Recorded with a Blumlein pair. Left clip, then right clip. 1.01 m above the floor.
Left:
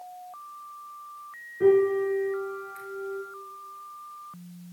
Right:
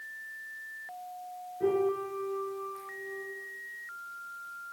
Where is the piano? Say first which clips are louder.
Left 8 dB; 65° left, 3.5 m.